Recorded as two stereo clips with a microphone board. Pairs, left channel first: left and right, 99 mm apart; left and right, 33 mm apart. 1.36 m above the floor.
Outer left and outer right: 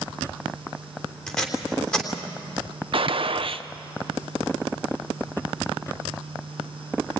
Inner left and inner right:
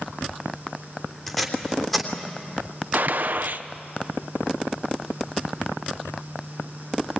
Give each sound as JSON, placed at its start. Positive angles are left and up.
{"t": 1.3, "sound": "tape being pulled", "side_deg": 10, "distance_m": 3.0}
{"t": 2.9, "sound": "a gunshot", "side_deg": -65, "distance_m": 0.8}